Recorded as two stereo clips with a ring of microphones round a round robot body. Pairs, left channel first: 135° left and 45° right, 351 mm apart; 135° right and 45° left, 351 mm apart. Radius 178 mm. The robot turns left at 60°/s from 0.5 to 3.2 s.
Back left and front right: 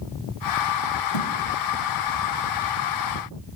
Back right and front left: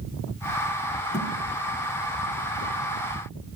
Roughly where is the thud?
Behind left.